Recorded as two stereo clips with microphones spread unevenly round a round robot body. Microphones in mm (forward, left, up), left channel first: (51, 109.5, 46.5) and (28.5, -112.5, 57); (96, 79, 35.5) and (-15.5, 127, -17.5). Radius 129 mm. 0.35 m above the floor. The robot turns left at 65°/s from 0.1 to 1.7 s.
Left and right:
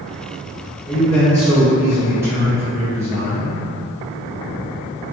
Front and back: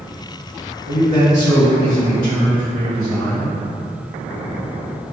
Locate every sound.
0.8 s a man speaking: 40° left, 1.7 m; by 3.5 s 20° right, 1.7 m